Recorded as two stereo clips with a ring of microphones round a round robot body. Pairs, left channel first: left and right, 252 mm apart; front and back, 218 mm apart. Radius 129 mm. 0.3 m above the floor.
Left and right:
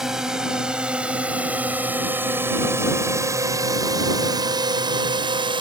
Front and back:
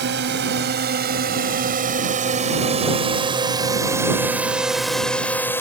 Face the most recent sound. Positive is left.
turn(degrees=-60)